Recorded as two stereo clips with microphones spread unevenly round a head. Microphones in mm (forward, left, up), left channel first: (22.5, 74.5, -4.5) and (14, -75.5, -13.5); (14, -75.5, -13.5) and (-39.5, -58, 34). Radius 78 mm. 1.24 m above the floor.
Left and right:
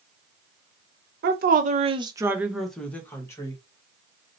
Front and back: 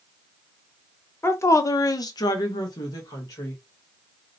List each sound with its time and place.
1.2 s a woman speaking: 70° right, 0.8 m; by 3.6 s 20° left, 1.4 m